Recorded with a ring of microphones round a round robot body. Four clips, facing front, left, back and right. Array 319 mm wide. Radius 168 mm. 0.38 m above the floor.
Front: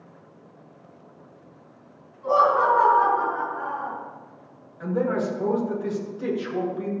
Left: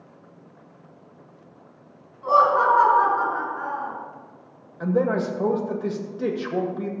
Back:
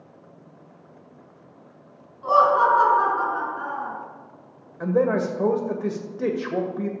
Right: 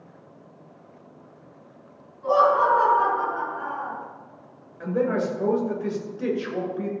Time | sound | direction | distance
2.2 | laughter | 150° left | 6 m
4.8 | a man speaking | 160° left | 2 m